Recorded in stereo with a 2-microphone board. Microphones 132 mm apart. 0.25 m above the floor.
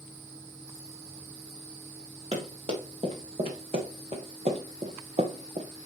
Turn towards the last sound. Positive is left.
turn(degrees=-60)  # may be behind; listen again after turning